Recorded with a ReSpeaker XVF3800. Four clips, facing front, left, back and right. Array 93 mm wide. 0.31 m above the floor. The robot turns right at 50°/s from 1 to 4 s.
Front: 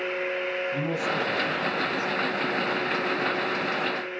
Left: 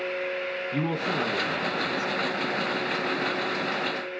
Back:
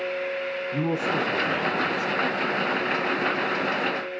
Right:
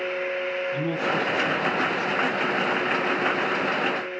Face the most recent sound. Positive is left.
turn(degrees=-90)